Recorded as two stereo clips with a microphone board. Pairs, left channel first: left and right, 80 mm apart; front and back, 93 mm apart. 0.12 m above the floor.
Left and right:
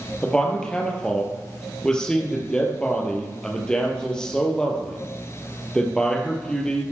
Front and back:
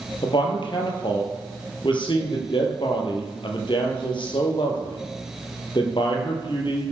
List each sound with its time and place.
0.2 s a man speaking: 10° left, 3 m